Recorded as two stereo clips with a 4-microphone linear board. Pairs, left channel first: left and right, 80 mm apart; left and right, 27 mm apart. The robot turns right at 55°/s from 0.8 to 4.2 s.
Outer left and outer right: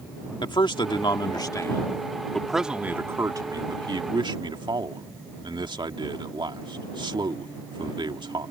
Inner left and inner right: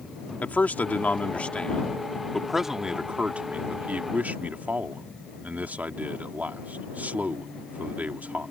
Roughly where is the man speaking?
Left.